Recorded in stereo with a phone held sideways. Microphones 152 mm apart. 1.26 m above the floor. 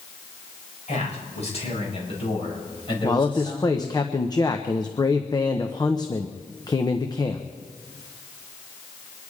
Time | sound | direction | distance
0.9 | a man speaking | 50° left (ahead or behind) | 5 m
3.0 | a man speaking | 25° left (ahead or behind) | 0.9 m